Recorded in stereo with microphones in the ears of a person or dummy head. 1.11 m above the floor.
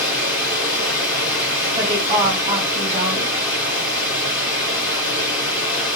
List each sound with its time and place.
0.0 s running water: 20° left (ahead or behind), 2.5 m
1.8 s a woman speaking: 25° right (ahead or behind), 1.7 m